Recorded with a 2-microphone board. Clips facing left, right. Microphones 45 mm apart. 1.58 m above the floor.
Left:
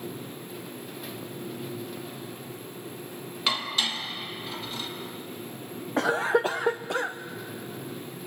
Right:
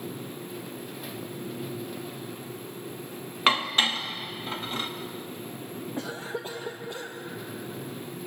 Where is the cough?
70° left (ahead or behind), 0.6 m.